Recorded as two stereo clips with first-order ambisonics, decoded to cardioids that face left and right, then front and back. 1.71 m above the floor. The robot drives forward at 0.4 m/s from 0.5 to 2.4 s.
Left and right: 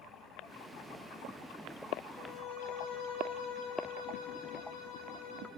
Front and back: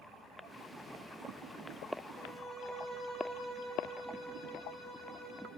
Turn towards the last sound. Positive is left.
turn(degrees=90)